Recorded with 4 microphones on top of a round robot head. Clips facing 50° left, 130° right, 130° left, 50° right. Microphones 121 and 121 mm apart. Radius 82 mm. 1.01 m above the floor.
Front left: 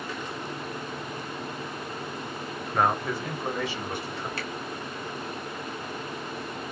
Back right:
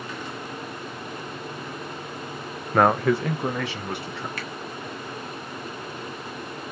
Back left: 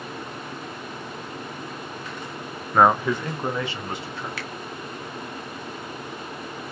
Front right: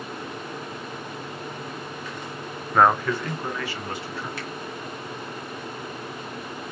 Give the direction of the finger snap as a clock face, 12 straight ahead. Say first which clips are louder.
Even, even; 8 o'clock.